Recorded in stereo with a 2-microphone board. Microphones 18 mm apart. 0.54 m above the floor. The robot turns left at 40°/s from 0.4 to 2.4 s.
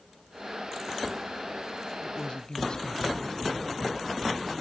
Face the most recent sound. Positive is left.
turn(degrees=55)  # may be behind; listen again after turning